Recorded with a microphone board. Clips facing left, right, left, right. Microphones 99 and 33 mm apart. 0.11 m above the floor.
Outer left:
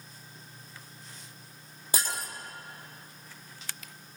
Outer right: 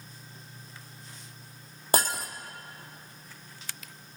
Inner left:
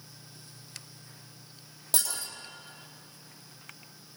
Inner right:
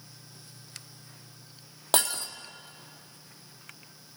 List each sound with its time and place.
1.9 s breaking glass: 60° right (ahead or behind), 2.5 m